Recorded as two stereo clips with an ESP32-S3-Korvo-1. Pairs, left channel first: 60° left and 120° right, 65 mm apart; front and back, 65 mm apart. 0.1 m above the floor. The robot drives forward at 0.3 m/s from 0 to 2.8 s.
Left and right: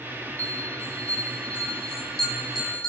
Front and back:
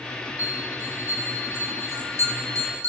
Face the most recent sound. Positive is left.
turn(degrees=140)